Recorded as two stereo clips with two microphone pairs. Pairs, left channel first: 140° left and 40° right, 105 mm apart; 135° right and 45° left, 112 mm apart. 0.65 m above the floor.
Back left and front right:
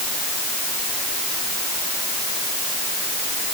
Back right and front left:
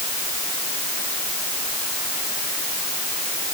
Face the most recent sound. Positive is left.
No sound to turn to.